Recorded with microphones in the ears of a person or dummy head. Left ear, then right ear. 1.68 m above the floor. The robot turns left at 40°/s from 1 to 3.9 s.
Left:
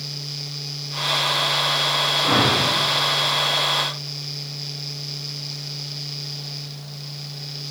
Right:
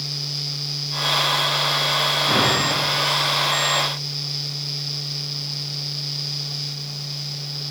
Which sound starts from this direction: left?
A whoosh, at 2.2 s.